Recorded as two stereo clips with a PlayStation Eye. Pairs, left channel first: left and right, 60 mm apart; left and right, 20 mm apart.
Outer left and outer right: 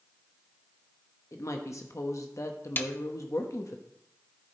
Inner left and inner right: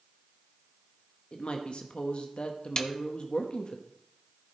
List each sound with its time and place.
1.3 s a woman speaking: 60° left (ahead or behind), 1.0 m
2.8 s a snare drum: 35° left (ahead or behind), 0.8 m